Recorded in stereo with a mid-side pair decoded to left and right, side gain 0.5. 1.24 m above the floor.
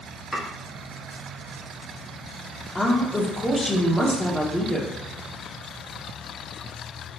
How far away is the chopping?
About 1.5 m.